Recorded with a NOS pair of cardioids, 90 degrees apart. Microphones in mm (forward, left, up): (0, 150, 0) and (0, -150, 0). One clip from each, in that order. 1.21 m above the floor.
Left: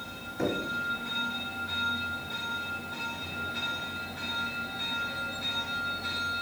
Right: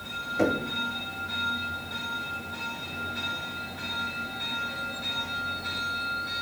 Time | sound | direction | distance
0.4 | knocking | 55° right | 1.6 m